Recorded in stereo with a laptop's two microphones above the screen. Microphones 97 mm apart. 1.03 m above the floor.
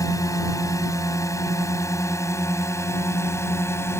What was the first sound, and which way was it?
A drone, 35° left (ahead or behind).